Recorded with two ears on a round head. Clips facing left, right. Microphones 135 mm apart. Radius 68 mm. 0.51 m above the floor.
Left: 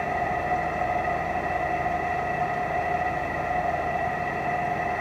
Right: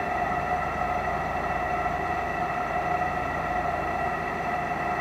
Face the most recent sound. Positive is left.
turn(degrees=25)  # may be behind; listen again after turning